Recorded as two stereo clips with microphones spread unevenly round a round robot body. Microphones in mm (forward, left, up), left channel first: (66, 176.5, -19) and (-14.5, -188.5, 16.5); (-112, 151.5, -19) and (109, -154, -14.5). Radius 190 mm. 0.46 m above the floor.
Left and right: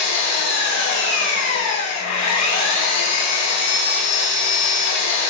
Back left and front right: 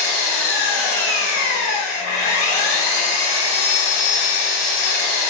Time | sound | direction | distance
0.0 | an engine running | 120° left | 0.9 m